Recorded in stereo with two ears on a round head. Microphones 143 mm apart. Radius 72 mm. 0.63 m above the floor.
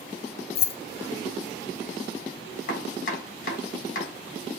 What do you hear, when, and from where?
0.6 s keys jangling: 35° left (ahead or behind), 0.5 m
2.7 s chopping: 55° left (ahead or behind), 3 m